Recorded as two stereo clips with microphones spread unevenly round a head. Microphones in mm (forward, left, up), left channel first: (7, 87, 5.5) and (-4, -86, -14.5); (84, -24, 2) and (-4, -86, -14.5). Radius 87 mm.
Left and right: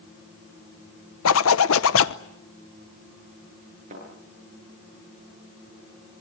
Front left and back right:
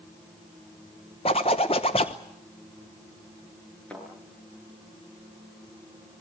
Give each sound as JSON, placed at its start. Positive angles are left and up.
{"t": 1.2, "sound": "a zipper", "azimuth_deg": 95, "distance_m": 0.9}
{"t": 3.9, "sound": "a thud", "azimuth_deg": -45, "distance_m": 9.0}